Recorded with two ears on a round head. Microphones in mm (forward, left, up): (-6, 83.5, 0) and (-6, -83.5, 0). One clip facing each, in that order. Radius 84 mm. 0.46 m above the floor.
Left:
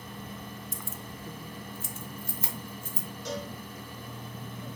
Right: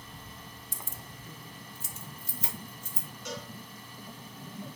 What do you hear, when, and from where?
0.7 s keys jangling: 30° right (ahead or behind), 0.7 m; by 3.1 s 50° left (ahead or behind), 3 m
3.2 s a cowbell: 35° left (ahead or behind), 3 m